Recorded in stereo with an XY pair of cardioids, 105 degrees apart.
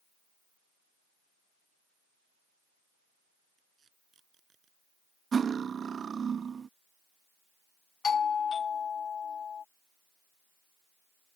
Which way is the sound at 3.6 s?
45° right.